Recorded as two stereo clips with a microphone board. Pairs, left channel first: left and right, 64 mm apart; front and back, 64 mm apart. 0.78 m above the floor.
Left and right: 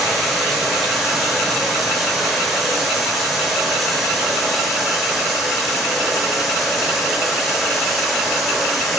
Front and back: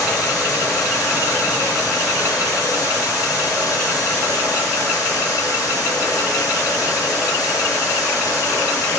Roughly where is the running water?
Ahead.